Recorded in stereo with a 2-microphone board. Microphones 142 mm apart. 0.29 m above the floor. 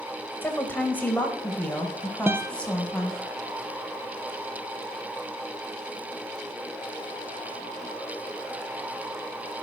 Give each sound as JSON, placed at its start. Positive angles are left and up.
{"t": 0.4, "sound": "a woman speaking", "side_deg": 15, "distance_m": 1.4}
{"t": 2.3, "sound": "a guitar", "side_deg": -15, "distance_m": 0.6}